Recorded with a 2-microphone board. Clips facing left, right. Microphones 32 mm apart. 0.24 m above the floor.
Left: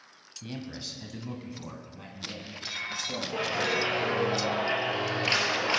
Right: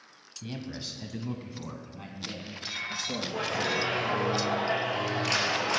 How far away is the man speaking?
About 1.1 m.